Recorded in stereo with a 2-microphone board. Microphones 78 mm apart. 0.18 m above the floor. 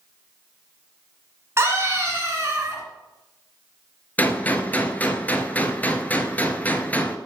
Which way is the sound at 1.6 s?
35° right (ahead or behind).